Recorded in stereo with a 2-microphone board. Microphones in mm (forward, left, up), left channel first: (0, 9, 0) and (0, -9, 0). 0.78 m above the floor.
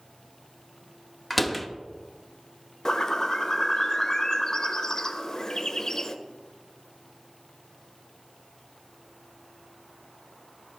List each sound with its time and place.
1.3 s a door slam: 5° left (ahead or behind), 0.7 m
2.9 s a bird: 30° left (ahead or behind), 0.6 m